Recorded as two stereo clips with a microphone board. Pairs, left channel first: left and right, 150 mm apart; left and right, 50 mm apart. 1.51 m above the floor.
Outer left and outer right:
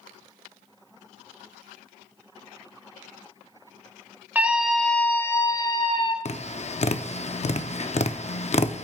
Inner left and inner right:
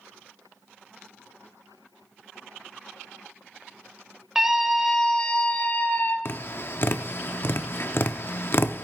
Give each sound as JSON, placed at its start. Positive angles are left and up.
{"t": 4.3, "sound": "a scream", "side_deg": -10, "distance_m": 1.4}
{"t": 6.2, "sound": "tapping", "side_deg": 50, "distance_m": 0.6}